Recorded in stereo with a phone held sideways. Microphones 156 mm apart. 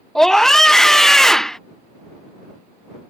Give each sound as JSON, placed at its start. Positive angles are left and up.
{"t": 0.1, "sound": "a scream", "side_deg": 0}